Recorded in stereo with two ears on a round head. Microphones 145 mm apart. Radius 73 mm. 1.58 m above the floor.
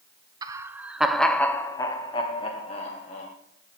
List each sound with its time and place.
0.4 s laughter: 25° right (ahead or behind), 0.9 m; by 3.3 s 45° left (ahead or behind), 1.6 m